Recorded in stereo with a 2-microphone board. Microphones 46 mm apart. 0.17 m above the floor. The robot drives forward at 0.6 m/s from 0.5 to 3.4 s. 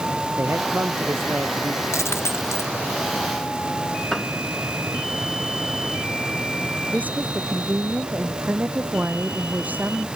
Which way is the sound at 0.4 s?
60° right (ahead or behind).